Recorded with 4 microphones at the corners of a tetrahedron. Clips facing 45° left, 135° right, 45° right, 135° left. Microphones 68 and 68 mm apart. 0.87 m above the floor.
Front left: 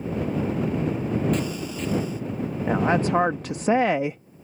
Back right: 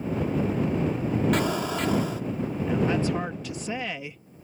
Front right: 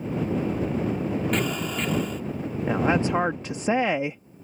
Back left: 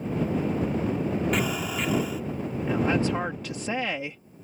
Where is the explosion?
140° right.